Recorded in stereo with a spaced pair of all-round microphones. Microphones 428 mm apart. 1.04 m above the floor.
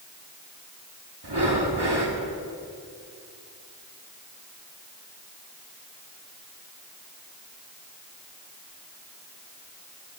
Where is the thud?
No thud in this recording.